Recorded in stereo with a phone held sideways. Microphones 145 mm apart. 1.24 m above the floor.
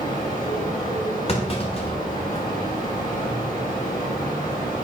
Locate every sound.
0.0 s a fan: 80° left, 3 m
1.3 s a clunk: 45° left (ahead or behind), 1.3 m